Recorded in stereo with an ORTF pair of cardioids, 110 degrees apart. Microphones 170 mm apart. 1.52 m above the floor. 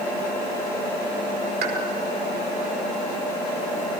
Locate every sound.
1.6 s a pop: 70° right, 4.5 m